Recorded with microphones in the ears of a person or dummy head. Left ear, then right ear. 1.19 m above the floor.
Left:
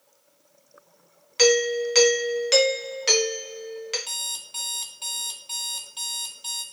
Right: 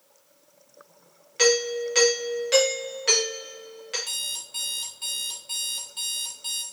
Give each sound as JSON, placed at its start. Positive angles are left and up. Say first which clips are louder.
{"t": 1.4, "sound": "a doorbell", "louder": "left 2 dB", "side_deg": 25, "distance_m": 0.7}
{"t": 4.1, "sound": "an alarm clock", "louder": "even", "side_deg": 15, "distance_m": 0.6}